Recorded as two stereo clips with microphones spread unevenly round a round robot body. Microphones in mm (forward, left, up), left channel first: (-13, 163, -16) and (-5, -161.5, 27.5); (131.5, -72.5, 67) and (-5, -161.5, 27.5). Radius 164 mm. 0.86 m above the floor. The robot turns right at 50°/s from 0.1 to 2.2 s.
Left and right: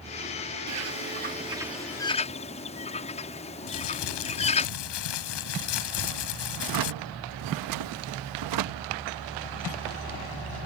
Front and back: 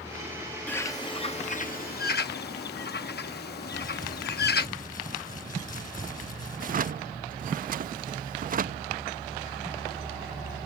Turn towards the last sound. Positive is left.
turn(degrees=-115)